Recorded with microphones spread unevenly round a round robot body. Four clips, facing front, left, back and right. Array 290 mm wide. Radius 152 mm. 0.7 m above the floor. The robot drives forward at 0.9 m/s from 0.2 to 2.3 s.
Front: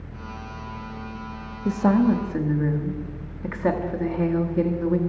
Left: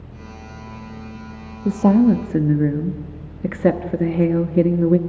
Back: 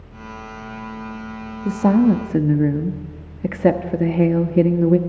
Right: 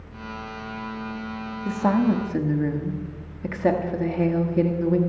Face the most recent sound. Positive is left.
turn(degrees=140)